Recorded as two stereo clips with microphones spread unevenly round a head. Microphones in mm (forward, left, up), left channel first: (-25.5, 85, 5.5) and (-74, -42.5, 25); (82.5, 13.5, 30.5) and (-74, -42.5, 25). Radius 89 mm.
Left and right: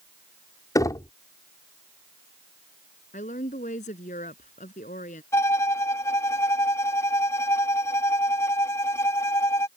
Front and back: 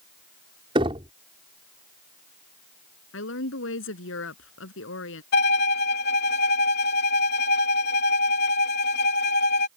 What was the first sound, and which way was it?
Knocking, 135° left.